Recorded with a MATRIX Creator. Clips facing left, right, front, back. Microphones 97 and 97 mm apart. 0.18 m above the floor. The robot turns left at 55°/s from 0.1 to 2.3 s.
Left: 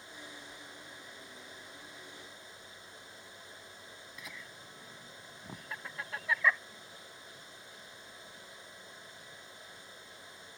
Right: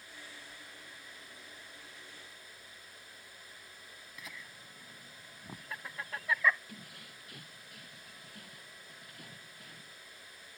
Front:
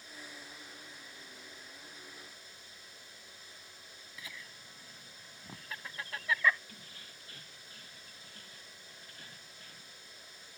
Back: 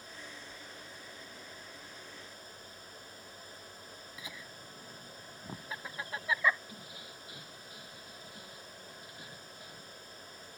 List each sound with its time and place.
4.2 s laughter: straight behind
6.7 s keys jangling: 105° right